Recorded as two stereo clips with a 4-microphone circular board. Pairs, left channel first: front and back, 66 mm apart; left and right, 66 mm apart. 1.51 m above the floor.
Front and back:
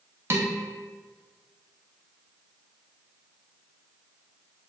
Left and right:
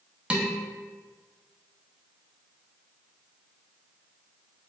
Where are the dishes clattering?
155° right, 0.7 m.